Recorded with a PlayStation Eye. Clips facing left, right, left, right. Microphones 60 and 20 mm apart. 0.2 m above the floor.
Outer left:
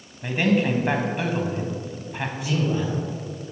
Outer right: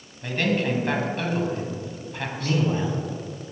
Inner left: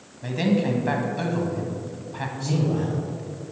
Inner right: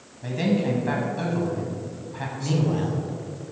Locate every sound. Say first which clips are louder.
0.2 s a man speaking: outer left 3 dB, inner left 1 dB; 15° left (ahead or behind), 1.1 m
2.4 s a man speaking: outer right 1 dB, even; 35° right (ahead or behind), 1.3 m